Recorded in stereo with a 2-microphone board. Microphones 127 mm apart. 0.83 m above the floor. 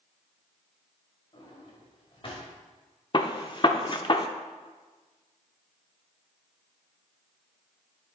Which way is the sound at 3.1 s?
40° left (ahead or behind).